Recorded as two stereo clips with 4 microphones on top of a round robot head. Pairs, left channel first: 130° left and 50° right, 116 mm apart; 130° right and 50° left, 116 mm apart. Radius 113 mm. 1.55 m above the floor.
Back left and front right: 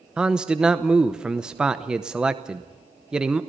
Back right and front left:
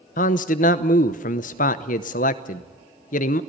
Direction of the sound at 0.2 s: 135° right.